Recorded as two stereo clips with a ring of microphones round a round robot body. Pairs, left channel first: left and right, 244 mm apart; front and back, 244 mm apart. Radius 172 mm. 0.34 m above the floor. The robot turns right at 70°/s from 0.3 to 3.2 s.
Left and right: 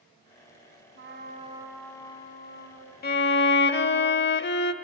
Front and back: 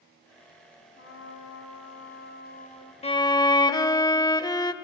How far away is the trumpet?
About 2.5 m.